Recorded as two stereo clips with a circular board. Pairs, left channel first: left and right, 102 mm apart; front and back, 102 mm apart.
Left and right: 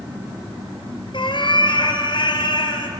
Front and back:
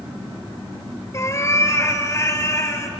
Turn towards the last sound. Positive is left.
turn(degrees=60)